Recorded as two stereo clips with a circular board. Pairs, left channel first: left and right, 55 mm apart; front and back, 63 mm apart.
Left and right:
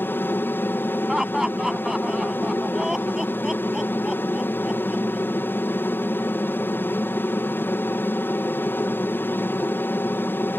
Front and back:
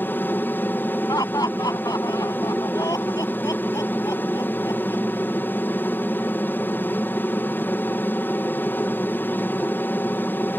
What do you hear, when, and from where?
0.0 s an aircraft: 50° left
1.1 s laughter: 10° right